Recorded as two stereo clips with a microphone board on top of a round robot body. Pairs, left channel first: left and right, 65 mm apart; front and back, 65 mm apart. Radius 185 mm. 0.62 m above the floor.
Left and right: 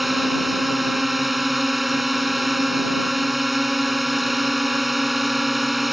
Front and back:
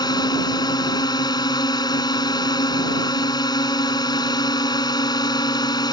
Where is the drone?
Straight ahead.